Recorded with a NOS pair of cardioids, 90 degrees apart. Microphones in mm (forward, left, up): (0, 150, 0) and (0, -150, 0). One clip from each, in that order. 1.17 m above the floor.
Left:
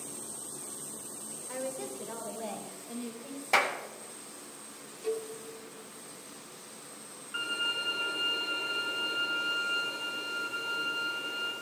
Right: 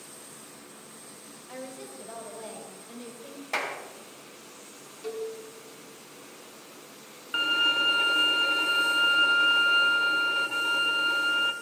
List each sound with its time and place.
1.5 s a woman speaking: 10° left, 5 m; by 3.4 s 10° right, 5 m
3.5 s a clap: 30° left, 2.5 m
5.0 s a cowbell: 15° right, 2.5 m
7.3 s a violin: 60° right, 1.7 m